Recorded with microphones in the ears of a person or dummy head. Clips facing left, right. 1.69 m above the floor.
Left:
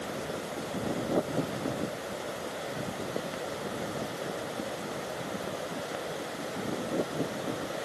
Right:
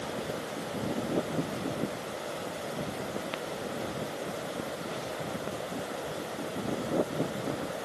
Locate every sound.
Only background noise.